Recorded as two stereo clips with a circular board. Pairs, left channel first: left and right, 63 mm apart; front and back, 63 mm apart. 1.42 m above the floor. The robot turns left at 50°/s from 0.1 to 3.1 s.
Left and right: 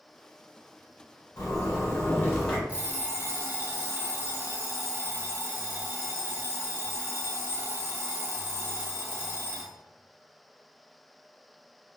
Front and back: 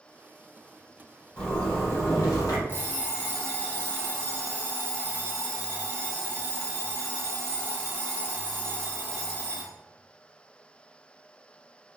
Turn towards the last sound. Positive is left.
turn(degrees=-55)